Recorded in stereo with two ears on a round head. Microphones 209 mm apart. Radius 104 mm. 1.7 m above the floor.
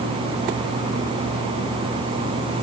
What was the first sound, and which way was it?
Only background noise.